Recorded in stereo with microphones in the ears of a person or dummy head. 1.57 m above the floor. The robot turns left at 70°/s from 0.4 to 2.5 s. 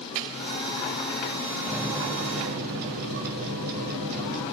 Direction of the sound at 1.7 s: Straight ahead.